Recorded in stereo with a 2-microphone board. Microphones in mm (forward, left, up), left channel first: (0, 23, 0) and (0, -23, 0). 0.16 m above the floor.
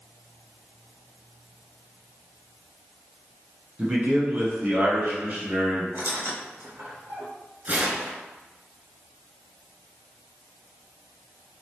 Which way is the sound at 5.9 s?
55° right (ahead or behind).